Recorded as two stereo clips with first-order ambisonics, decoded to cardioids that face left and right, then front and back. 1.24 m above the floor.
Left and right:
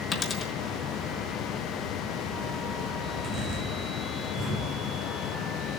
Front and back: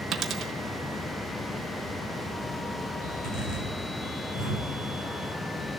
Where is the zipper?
30° right, 8 m.